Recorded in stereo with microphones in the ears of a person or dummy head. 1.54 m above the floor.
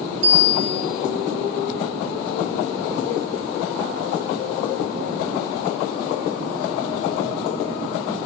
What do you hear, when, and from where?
0.2 s a bicycle bell: 85° right, 4.5 m